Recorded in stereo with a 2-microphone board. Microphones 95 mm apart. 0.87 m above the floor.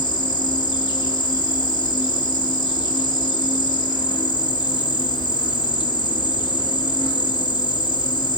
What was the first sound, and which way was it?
An insect, 50° left (ahead or behind).